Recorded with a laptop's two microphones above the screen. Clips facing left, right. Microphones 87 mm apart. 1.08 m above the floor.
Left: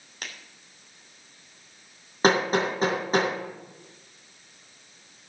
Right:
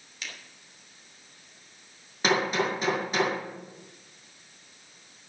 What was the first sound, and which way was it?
A finger snap, 50° left (ahead or behind).